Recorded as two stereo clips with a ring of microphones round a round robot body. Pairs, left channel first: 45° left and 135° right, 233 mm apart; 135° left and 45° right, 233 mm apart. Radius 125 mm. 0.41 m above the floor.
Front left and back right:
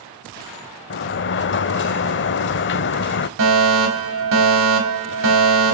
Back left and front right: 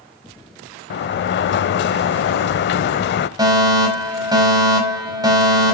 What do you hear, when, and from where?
0.9 s a sliding door: 90° left, 0.7 m
3.4 s a fire alarm: 120° right, 4.5 m